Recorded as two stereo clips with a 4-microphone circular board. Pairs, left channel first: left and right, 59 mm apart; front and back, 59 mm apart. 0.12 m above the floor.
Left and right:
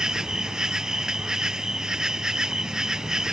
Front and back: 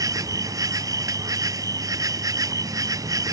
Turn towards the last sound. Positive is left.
turn(degrees=-170)